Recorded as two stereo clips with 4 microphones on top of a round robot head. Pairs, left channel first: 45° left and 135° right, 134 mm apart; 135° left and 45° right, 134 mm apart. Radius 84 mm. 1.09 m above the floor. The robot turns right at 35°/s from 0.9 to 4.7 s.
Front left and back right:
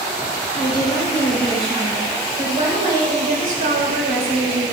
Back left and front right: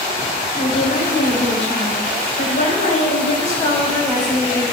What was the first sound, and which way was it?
A woman speaking, 110° left.